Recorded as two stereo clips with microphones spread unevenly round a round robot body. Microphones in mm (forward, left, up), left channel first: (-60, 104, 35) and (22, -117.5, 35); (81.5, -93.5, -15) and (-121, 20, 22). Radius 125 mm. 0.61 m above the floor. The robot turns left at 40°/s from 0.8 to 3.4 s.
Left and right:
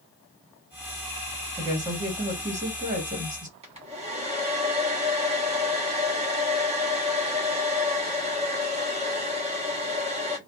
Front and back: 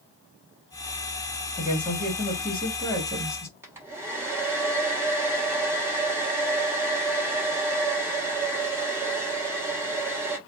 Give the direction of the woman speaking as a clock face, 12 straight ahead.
12 o'clock.